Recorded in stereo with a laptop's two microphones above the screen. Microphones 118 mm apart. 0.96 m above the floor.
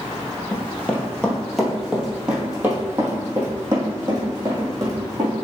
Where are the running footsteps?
20° left (ahead or behind), 1.5 m; by 5.4 s 35° right (ahead or behind), 3 m.